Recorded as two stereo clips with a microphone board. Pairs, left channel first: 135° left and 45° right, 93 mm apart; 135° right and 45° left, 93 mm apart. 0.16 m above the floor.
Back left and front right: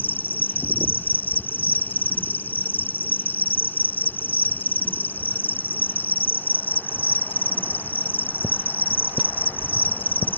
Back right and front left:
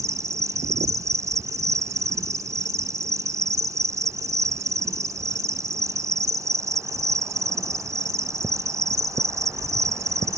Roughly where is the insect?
Left.